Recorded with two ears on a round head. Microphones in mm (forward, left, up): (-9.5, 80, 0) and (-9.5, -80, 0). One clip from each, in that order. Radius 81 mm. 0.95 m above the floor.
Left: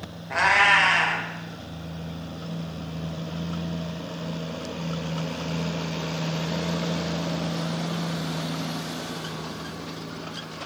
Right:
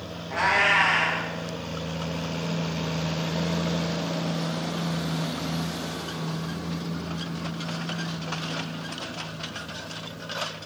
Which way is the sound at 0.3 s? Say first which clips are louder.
Left 3 dB; 55° left (ahead or behind).